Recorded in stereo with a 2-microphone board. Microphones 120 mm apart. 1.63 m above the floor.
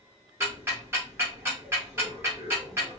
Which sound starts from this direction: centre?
Ticking, at 0.4 s.